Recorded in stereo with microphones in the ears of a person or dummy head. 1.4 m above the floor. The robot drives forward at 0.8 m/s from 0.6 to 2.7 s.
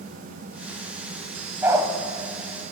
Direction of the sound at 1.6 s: 20° right (ahead or behind).